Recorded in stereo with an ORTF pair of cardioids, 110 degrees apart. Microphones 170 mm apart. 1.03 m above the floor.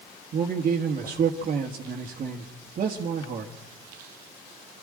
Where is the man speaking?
50° right, 1.7 m.